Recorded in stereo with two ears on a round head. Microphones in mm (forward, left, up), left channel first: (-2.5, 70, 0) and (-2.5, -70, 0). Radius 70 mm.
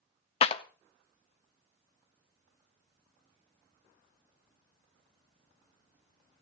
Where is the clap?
40° left (ahead or behind), 0.7 m.